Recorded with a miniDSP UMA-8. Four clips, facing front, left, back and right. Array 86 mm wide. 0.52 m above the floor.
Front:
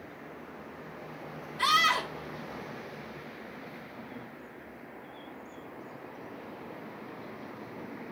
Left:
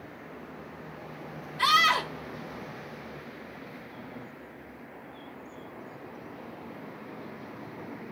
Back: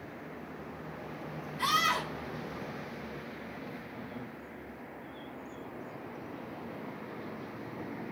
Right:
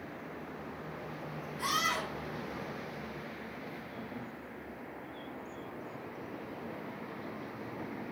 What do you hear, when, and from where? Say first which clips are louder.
1.6 s a scream: left 10 dB, front 3 dB; 70° left, 2.5 m